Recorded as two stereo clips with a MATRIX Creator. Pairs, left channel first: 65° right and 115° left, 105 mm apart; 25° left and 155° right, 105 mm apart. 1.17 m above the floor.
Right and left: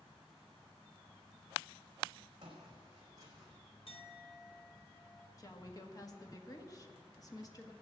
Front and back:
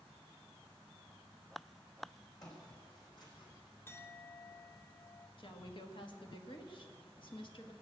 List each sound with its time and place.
2.4 s footsteps: 70° left, 4 m; by 3.5 s 60° left, 3 m
3.9 s a clink: 45° right, 0.7 m
5.4 s a woman speaking: 15° right, 1.4 m